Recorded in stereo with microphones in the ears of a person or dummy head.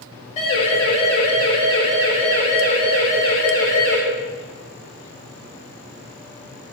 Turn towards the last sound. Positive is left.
turn(degrees=20)  # may be behind; listen again after turning